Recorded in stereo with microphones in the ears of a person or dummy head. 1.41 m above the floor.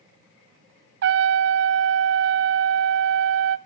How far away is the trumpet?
About 0.7 m.